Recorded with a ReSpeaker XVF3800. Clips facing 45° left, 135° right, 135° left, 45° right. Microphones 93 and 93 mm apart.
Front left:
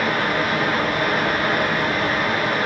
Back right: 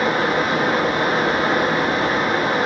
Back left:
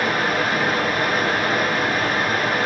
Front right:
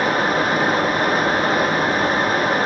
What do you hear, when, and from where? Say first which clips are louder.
0.0 s running water: back right 2 dB, front right 3 dB; 85° right, 0.8 m